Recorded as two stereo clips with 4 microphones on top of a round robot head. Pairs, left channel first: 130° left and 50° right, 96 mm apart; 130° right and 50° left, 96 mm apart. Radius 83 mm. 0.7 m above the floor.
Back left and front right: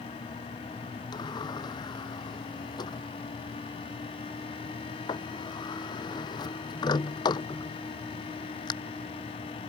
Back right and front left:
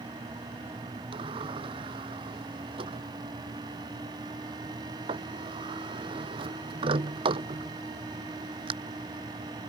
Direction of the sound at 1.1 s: 85° left.